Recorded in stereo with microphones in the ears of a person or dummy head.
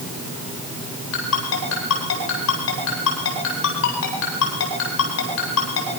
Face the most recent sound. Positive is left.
turn(degrees=85)